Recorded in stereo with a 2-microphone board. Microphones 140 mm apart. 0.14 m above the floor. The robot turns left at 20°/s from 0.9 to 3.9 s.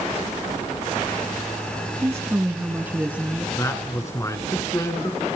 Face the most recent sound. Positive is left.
turn(degrees=20)  # may be behind; listen again after turning